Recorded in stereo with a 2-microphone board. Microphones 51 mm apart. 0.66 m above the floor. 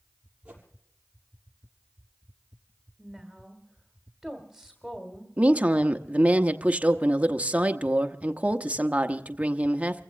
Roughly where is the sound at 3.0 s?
Centre.